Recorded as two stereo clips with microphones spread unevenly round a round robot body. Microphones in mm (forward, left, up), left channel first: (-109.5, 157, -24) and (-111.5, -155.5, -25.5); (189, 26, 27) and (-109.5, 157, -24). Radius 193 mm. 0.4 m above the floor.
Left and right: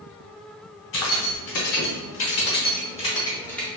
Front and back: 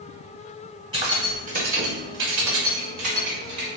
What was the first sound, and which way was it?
Keys jangling, 85° left.